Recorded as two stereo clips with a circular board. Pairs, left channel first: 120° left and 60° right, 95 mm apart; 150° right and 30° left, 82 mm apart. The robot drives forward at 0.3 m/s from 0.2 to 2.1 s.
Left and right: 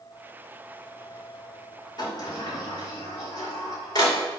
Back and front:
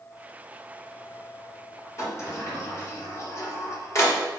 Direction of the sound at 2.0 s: 160° left.